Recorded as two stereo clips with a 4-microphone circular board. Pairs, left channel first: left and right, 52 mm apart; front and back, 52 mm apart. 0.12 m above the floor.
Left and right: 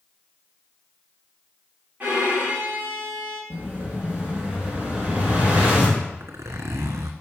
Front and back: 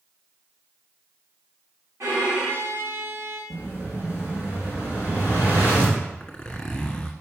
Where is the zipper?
75° right, 1.4 m.